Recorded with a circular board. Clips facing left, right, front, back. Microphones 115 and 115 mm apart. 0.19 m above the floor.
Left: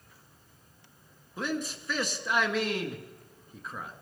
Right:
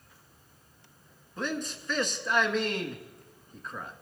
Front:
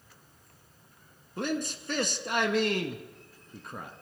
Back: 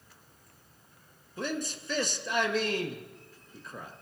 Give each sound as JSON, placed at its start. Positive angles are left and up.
{"t": 1.4, "sound": "a man speaking", "azimuth_deg": 5, "distance_m": 1.8}